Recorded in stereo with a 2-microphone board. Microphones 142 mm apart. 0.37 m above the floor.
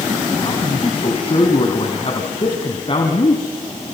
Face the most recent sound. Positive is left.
turn(degrees=40)  # may be behind; listen again after turning